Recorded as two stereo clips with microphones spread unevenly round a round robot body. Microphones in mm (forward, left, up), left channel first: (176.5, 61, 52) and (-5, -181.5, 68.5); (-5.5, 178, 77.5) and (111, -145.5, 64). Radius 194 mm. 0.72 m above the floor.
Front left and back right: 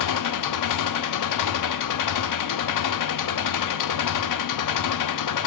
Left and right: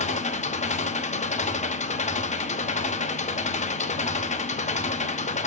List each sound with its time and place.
0.0 s an engine running: 40° left, 0.9 m